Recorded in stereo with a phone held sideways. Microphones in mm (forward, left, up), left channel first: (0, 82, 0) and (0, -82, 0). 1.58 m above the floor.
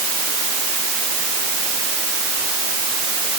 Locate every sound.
Only background noise.